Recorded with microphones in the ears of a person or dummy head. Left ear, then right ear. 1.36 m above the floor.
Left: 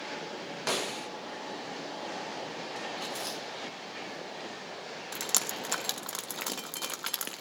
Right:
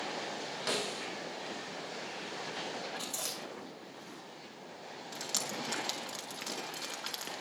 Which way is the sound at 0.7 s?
25° left (ahead or behind).